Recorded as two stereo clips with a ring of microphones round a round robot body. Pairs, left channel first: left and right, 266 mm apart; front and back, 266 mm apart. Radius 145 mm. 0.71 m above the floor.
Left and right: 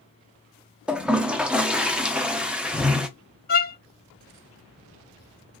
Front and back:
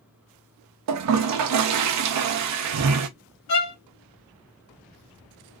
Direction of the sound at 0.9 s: 175° right.